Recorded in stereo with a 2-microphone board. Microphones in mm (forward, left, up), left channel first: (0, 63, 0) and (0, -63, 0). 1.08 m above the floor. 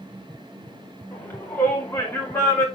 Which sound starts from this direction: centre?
A shout, at 1.1 s.